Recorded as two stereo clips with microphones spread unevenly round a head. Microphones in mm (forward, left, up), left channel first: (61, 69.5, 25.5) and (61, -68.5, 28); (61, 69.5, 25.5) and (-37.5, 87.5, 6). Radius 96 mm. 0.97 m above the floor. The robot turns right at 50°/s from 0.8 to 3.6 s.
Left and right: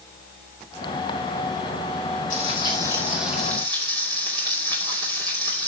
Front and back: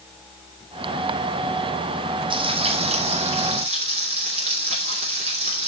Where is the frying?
135° left, 2.5 m; by 5.7 s 160° right, 2.5 m.